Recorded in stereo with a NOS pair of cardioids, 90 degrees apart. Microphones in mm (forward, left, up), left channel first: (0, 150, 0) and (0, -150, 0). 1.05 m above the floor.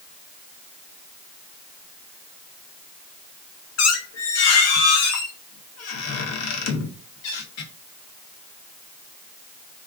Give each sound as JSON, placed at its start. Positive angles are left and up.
{"t": 3.8, "sound": "a squeak", "azimuth_deg": 60, "distance_m": 0.8}